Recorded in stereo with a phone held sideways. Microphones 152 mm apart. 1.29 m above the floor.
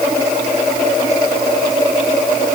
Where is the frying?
No frying in this recording.